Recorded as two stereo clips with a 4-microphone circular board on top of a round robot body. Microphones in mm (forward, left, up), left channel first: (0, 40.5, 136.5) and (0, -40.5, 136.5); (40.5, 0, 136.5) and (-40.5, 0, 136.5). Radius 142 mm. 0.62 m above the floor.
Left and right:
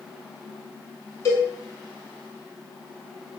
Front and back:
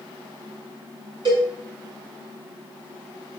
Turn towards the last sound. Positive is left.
turn(degrees=145)